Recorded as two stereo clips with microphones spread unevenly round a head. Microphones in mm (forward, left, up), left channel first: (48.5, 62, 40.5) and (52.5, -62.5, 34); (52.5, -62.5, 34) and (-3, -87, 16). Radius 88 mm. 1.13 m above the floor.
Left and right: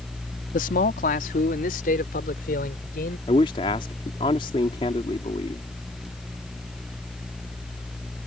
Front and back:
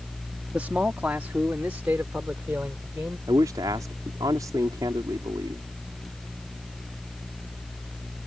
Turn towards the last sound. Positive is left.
turn(degrees=150)